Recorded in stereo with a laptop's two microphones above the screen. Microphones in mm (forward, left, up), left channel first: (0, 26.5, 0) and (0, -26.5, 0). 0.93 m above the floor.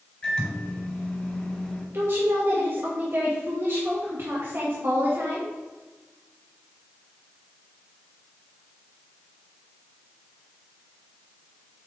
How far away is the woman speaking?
About 1.1 m.